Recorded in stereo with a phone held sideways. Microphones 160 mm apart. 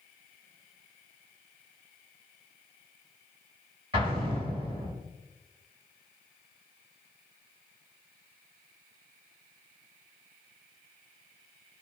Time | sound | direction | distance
3.9 | an explosion | 35° right (ahead or behind) | 1.9 m